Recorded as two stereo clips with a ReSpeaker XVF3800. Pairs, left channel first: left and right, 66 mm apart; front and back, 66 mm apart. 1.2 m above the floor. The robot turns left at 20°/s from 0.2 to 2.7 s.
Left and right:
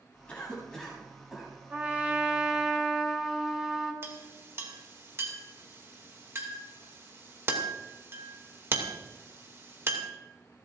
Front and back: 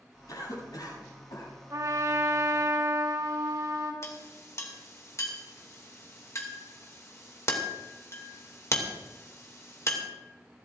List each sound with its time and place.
0.3 s a cough: 15° left, 8.5 m; by 1.5 s 10° right, 8.5 m
1.7 s a trumpet: 155° right, 2.5 m; by 3.9 s 175° right, 2.5 m
4.0 s a clink: 40° right, 2.5 m